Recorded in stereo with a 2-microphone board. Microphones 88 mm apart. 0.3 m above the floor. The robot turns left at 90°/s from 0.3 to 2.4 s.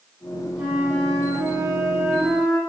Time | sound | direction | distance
0.6 | a flute | 10° right | 1.1 m